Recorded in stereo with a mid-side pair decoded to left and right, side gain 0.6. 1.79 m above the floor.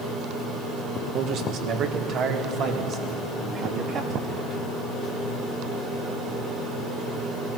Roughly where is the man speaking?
Ahead right.